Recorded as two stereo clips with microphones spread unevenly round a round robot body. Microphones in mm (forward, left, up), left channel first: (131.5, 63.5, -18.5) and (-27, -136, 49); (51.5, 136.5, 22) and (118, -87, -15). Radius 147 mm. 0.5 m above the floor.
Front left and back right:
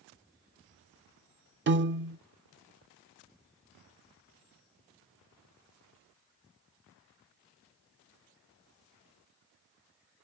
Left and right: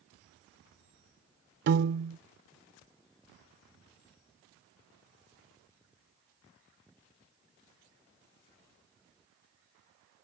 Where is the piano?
80° right.